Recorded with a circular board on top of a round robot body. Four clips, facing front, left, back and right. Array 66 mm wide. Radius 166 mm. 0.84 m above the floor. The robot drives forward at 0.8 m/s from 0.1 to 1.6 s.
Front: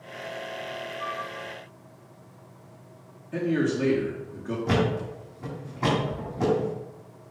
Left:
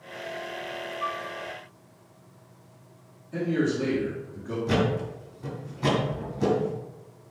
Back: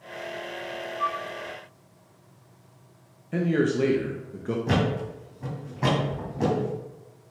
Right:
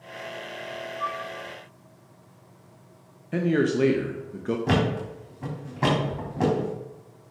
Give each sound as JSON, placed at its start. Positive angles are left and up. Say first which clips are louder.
{"t": 1.0, "sound": "a flute", "louder": "right 1 dB, back 6 dB", "azimuth_deg": -160, "distance_m": 1.8}
{"t": 3.3, "sound": "a man speaking", "louder": "right 3 dB, back 2 dB", "azimuth_deg": -110, "distance_m": 1.5}
{"t": 4.7, "sound": "a thud", "louder": "left 1 dB, front 2 dB", "azimuth_deg": -95, "distance_m": 3.0}